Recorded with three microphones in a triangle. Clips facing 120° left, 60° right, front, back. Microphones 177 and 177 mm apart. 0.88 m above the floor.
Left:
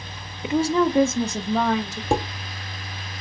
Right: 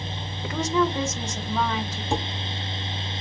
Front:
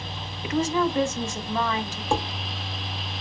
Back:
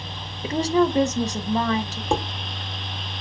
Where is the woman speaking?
175° left, 0.6 m; by 2.0 s 130° left, 1.7 m.